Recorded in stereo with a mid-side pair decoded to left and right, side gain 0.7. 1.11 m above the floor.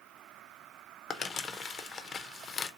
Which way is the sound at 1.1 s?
30° left.